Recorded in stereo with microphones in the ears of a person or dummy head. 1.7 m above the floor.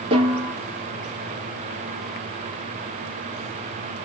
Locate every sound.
0.1 s a snare drum: 25° right (ahead or behind), 2.5 m